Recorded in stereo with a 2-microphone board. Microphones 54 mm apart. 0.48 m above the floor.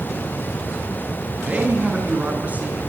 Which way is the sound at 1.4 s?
30° right (ahead or behind).